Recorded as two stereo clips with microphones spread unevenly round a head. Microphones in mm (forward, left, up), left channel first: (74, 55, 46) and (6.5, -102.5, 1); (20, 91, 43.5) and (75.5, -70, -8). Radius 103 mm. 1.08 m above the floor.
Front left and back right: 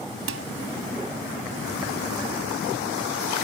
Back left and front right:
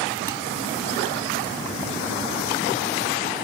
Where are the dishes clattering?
150° right.